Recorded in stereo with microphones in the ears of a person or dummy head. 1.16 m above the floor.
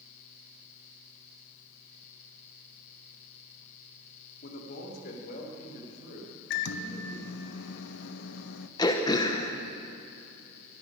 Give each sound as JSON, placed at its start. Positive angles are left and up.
{"t": 4.4, "sound": "a man speaking", "side_deg": 55, "distance_m": 1.9}
{"t": 6.5, "sound": "a microwave", "side_deg": 70, "distance_m": 0.8}
{"t": 8.8, "sound": "throat clearing", "side_deg": 15, "distance_m": 0.9}